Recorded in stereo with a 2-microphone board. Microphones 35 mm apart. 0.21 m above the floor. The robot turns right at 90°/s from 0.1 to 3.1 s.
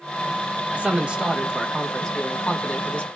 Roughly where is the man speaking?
Right.